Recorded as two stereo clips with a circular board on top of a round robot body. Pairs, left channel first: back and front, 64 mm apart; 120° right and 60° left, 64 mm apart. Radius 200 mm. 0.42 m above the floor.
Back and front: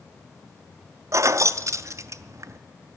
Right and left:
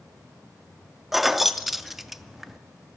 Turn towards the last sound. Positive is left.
turn(degrees=-25)